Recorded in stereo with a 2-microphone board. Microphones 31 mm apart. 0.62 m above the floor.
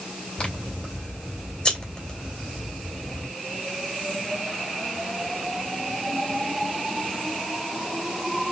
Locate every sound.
0.4 s scissors: 30° left (ahead or behind), 2 m